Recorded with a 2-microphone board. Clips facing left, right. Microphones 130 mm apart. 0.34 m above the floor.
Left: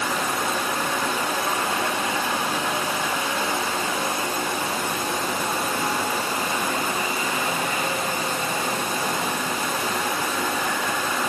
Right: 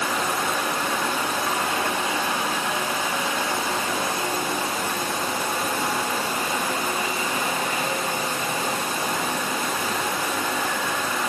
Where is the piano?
No piano in this recording.